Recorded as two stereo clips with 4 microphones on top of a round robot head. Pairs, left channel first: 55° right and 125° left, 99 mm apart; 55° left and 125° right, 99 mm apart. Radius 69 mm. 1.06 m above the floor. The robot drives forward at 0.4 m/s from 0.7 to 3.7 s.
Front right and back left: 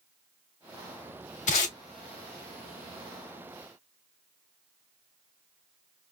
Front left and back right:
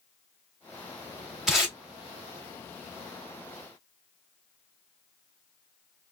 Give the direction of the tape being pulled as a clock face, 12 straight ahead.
1 o'clock.